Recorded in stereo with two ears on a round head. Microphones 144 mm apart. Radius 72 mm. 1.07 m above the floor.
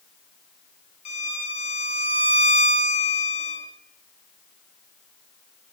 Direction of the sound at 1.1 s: 40° left (ahead or behind).